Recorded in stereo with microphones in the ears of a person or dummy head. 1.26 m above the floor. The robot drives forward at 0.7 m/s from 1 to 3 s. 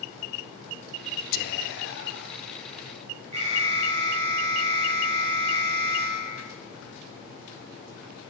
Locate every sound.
1.3 s whispering: 55° left (ahead or behind), 1.1 m; by 2.4 s 70° left (ahead or behind), 0.9 m
3.3 s an alarm: 35° right (ahead or behind), 4.5 m